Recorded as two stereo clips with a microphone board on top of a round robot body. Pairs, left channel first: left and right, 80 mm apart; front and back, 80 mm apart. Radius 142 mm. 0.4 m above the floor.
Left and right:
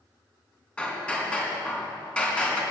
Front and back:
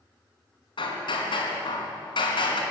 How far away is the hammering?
About 4 m.